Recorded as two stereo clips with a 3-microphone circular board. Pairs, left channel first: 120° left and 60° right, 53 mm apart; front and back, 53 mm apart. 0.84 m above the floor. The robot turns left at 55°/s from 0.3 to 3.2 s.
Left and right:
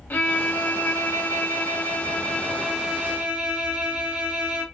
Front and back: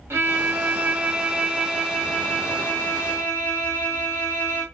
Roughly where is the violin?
Behind.